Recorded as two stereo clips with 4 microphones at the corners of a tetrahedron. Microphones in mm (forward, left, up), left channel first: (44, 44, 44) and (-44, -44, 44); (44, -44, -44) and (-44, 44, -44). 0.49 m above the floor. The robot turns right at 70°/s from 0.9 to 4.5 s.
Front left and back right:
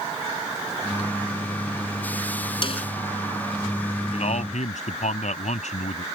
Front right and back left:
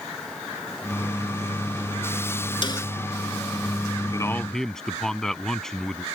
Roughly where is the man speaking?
Ahead.